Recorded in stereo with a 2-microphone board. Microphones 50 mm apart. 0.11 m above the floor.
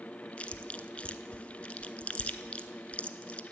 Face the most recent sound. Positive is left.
turn(degrees=25)  # may be behind; listen again after turning